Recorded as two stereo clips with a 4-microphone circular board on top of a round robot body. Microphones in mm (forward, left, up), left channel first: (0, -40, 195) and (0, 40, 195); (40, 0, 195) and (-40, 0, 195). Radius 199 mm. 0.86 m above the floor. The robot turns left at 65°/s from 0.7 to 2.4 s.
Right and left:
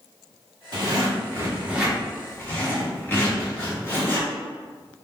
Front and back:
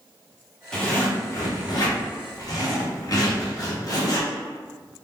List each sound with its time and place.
0.7 s a zipper: 80° left, 1.4 m; by 4.3 s 30° right, 1.4 m